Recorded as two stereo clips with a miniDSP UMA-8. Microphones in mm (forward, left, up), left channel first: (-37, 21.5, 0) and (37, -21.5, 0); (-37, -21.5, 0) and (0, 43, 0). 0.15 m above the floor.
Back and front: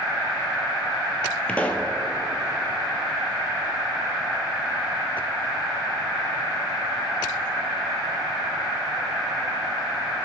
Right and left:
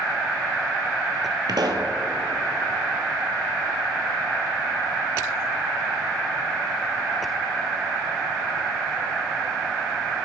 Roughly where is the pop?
Left.